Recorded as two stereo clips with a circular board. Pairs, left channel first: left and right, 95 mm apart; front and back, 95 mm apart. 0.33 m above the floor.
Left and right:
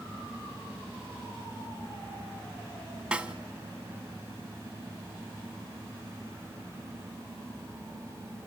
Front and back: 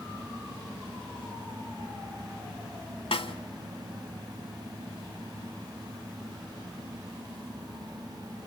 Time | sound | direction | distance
3.1 | a snare drum | 10° right | 0.9 m